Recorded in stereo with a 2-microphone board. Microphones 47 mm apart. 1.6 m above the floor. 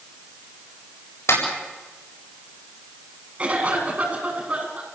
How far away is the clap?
About 7.5 m.